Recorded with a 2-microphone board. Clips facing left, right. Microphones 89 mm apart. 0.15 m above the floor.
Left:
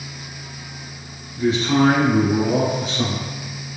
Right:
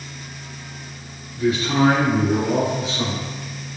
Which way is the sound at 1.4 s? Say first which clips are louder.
Left 1 dB; 30° left (ahead or behind).